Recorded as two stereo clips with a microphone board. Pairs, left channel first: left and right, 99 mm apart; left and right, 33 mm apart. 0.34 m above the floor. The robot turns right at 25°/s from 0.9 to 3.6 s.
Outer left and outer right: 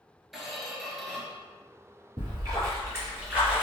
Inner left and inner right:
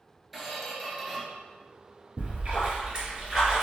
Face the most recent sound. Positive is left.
turn(degrees=-10)